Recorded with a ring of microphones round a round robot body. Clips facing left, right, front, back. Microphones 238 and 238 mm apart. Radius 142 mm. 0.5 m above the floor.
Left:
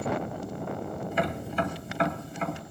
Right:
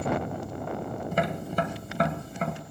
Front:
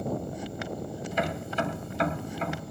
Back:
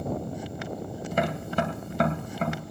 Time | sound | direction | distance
1.1 | tapping | 140° right | 1.9 m